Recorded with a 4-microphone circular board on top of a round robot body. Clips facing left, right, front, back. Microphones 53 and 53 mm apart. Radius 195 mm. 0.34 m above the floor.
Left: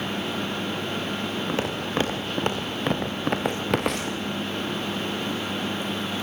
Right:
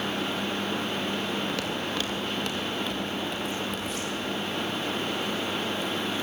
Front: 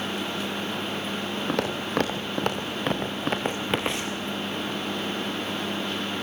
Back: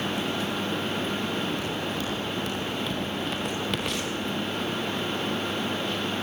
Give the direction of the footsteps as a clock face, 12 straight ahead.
11 o'clock.